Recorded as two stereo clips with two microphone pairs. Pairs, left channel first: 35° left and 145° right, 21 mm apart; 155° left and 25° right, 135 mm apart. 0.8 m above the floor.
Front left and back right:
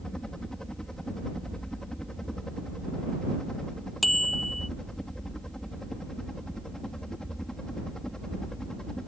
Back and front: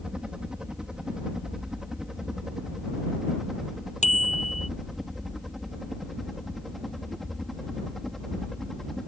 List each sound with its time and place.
0.0 s a helicopter: 55° left; by 9.1 s 70° left
4.0 s a bicycle bell: 125° left